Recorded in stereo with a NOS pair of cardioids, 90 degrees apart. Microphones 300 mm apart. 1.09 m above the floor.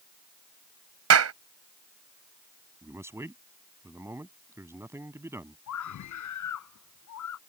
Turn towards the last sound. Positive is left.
turn(degrees=65)